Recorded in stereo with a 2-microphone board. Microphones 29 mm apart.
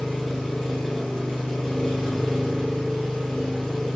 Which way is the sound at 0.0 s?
20° left (ahead or behind).